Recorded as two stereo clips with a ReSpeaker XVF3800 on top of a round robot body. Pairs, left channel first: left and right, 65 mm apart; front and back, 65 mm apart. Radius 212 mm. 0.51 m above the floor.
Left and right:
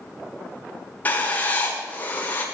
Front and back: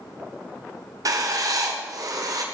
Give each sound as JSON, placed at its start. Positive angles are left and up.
{"t": 1.1, "sound": "writing", "azimuth_deg": 155, "distance_m": 1.8}